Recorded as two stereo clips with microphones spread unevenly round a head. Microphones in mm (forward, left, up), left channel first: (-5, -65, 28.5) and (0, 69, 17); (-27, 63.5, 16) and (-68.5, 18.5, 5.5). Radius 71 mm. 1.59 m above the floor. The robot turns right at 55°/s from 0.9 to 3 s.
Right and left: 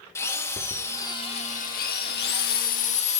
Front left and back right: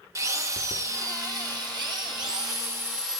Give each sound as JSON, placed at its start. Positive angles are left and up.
{"t": 0.1, "sound": "a drill", "azimuth_deg": -165, "distance_m": 1.5}